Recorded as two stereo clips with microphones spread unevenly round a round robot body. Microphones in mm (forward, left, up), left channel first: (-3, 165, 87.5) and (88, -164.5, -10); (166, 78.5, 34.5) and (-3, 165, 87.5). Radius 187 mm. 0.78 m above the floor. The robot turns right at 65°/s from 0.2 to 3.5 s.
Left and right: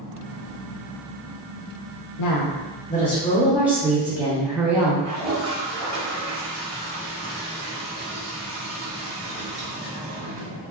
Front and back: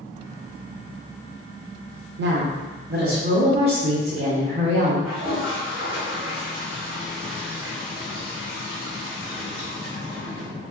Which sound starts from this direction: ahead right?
A toilet flushing, at 5.0 s.